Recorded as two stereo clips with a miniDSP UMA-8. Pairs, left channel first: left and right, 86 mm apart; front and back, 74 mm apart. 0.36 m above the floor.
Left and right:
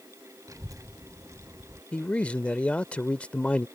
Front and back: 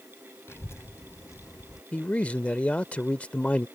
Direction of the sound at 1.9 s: 40° left.